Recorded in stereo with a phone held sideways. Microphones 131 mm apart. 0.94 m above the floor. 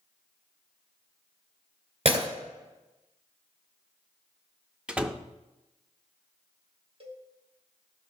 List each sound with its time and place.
2.0 s breaking glass: 50° right (ahead or behind), 2 m
4.9 s a door slam: 10° right (ahead or behind), 0.5 m
7.0 s a cowbell: 50° right (ahead or behind), 1.3 m